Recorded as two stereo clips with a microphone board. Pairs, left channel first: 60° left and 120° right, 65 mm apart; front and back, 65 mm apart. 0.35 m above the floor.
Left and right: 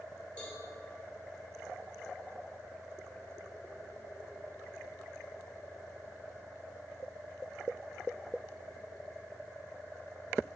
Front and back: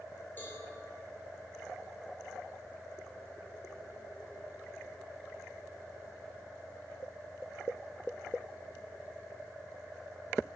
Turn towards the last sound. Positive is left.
turn(degrees=5)